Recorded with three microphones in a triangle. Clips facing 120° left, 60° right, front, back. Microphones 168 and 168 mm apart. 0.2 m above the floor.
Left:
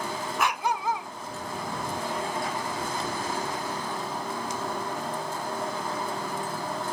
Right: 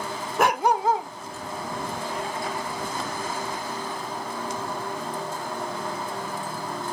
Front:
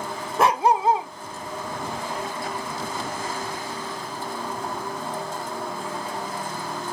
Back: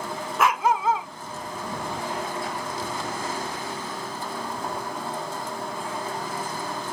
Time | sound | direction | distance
0.4 | a dog barking | 50° right | ?